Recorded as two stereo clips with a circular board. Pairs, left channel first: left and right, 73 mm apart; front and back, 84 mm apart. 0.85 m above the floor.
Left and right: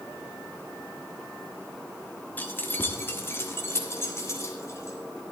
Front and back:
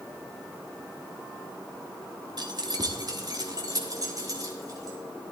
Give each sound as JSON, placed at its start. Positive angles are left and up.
{"t": 2.4, "sound": "keys jangling", "azimuth_deg": 155, "distance_m": 1.1}